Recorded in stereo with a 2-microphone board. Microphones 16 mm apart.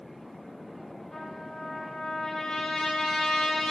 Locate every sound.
1.1 s a trumpet: 70° left (ahead or behind), 3.5 m